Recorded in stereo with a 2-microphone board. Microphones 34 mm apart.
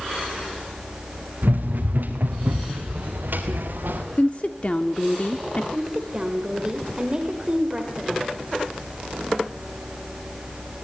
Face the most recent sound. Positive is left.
turn(degrees=-25)  # may be behind; listen again after turning